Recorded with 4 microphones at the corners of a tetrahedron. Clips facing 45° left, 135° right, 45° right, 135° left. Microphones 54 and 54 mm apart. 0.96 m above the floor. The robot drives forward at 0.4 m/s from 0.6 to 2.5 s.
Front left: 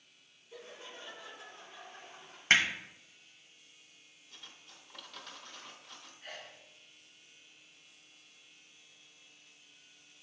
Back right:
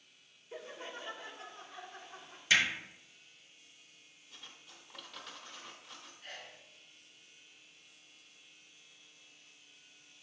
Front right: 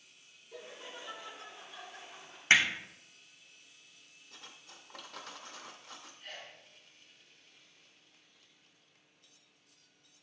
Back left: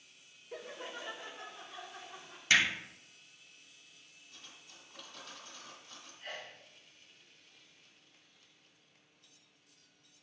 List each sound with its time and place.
0.5 s laughter: 175° left, 0.5 m
2.5 s hammering: 10° left, 1.2 m
4.3 s cutlery clinking: 45° right, 0.6 m
6.2 s a sneeze: 125° left, 0.5 m